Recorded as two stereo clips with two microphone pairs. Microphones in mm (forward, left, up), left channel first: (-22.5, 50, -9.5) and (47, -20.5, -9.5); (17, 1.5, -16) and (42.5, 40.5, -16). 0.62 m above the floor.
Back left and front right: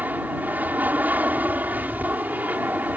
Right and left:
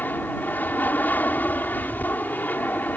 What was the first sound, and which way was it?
An aircraft, 110° right.